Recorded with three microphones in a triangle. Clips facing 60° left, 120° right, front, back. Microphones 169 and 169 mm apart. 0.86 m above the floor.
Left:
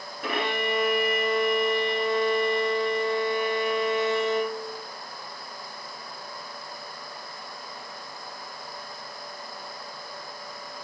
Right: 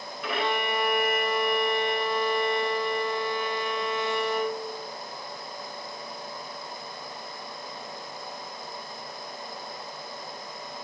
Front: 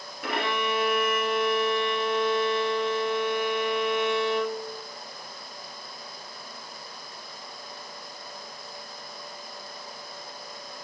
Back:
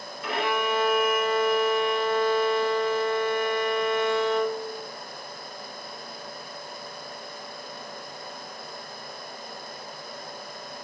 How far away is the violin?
About 1.9 m.